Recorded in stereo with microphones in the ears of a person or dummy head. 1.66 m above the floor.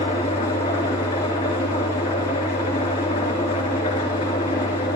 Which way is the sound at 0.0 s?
30° left (ahead or behind).